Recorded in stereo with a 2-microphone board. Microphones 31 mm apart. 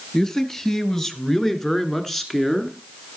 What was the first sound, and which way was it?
A man speaking, 20° left (ahead or behind).